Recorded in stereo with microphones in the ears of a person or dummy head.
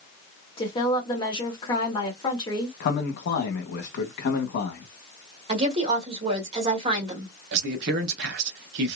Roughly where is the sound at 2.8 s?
Left.